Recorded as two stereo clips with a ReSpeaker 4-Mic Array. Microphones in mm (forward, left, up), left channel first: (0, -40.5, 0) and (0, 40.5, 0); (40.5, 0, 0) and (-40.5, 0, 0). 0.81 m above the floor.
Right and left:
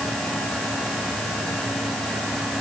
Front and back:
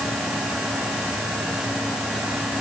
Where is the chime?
No chime in this recording.